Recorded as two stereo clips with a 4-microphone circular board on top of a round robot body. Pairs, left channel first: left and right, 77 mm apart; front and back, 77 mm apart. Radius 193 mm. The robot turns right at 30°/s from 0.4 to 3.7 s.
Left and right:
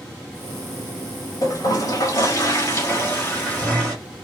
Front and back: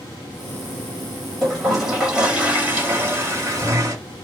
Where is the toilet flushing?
85° left, 1.7 m; by 4.0 s 155° left, 1.7 m.